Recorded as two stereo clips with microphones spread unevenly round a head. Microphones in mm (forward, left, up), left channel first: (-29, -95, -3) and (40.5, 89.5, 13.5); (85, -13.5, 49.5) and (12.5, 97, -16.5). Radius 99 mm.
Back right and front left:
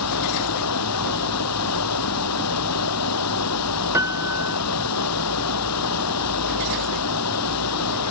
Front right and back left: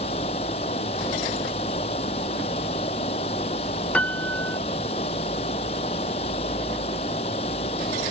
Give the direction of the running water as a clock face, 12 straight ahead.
4 o'clock.